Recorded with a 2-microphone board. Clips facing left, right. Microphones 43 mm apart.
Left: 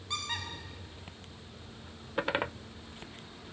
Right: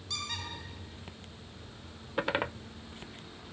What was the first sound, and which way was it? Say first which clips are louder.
A squeak: left 2 dB; 25° left (ahead or behind).